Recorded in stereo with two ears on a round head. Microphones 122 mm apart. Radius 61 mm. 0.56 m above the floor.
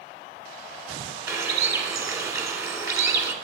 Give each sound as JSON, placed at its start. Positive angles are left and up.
{"t": 1.3, "sound": "a bird", "side_deg": -20, "distance_m": 1.4}